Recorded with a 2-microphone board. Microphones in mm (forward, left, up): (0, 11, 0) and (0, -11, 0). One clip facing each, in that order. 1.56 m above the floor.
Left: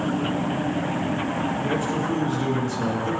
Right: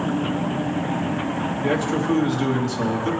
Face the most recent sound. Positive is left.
turn(degrees=-40)  # may be behind; listen again after turning